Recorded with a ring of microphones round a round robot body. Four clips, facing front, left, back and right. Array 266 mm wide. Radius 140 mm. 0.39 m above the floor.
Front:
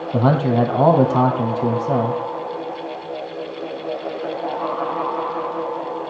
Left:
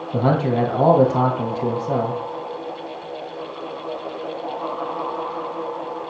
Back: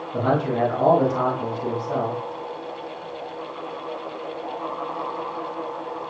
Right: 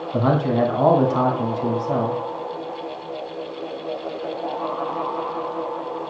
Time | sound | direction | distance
0.1 | a man speaking | 30° left | 4.5 m